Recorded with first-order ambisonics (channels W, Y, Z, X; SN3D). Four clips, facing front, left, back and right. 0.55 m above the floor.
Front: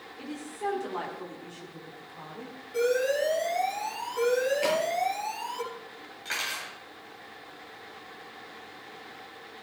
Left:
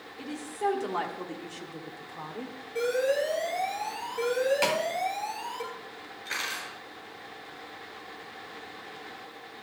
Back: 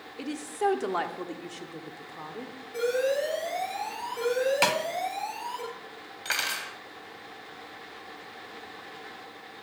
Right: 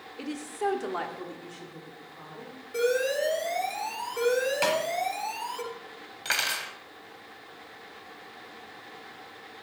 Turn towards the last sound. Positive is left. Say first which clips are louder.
# right 5 dB, back 3 dB
turn(degrees=-120)